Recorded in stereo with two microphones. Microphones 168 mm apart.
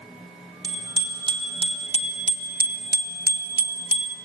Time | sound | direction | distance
0.6 | a bicycle bell | 25° right (ahead or behind) | 2.5 m